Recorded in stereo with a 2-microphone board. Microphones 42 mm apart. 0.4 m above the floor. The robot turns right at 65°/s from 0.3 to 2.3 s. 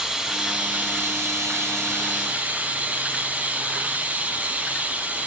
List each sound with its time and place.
0.0 s running water: 165° right, 0.8 m; by 5.3 s 35° right, 0.8 m